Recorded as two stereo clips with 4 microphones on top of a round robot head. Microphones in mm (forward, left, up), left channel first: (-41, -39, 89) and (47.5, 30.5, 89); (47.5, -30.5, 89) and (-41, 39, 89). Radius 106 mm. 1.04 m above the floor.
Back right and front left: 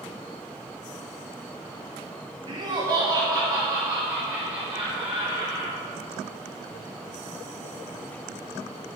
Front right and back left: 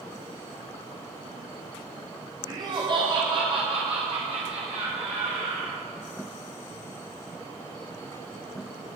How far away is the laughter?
About 1.7 m.